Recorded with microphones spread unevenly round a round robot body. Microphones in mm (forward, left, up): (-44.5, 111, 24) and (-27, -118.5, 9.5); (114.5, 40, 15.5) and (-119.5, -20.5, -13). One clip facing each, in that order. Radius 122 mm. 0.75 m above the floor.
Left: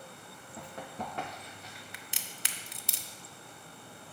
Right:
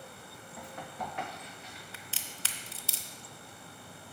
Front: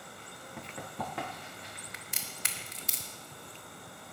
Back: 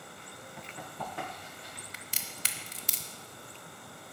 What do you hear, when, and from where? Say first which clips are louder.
0.6 s running footsteps: left 1 dB, front 3 dB; 25° left, 3 m; by 1.8 s 45° left, 3 m
1.9 s a crack: right 1 dB, even; 165° left, 0.6 m